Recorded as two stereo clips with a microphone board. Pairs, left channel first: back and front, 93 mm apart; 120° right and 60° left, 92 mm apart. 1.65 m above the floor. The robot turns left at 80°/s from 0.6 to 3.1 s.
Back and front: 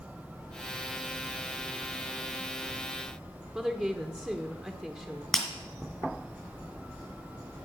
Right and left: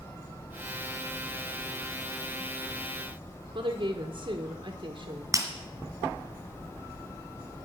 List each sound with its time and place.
3.5 s a woman speaking: 80° left, 1.3 m
5.3 s breaking glass: 90° left, 2 m